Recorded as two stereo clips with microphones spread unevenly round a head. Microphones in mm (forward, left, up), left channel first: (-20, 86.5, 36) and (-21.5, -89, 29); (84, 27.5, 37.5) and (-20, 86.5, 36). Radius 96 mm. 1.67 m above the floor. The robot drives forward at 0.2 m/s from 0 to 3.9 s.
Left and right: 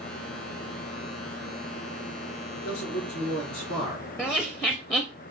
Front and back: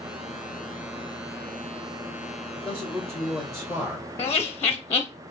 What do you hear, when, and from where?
2.5 s a man speaking: 80° left, 1.9 m; by 4.1 s 85° left, 1.8 m
4.2 s laughter: 20° left, 0.5 m